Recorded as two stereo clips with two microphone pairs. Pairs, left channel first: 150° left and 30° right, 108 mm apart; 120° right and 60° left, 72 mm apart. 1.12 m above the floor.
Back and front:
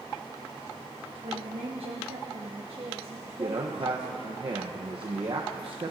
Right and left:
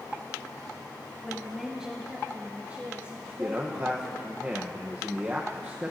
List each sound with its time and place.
1.2 s a woman speaking: 35° right, 0.9 m; by 4.4 s 15° left, 2.5 m
3.4 s a man speaking: straight ahead, 0.8 m